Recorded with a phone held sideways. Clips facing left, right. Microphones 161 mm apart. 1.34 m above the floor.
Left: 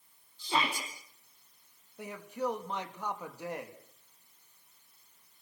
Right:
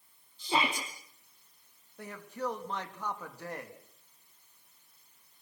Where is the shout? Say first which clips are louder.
Right 1 dB; 20° right (ahead or behind), 3.5 m.